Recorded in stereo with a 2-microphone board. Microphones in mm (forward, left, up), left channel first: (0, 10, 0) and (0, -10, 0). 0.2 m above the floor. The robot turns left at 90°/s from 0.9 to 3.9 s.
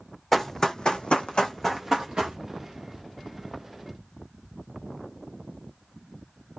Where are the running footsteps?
15° left (ahead or behind), 0.6 m; by 2.4 s 65° right (ahead or behind), 1.0 m.